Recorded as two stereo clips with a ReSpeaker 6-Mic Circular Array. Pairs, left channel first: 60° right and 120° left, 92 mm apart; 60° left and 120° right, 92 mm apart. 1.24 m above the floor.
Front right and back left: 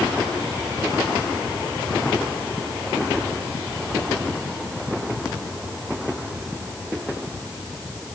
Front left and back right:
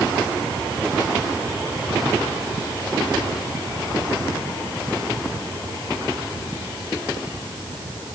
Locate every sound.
Only background noise.